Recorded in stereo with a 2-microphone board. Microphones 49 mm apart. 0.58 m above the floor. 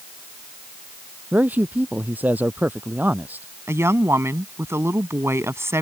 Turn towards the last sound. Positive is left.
turn(degrees=-65)  # may be behind; listen again after turning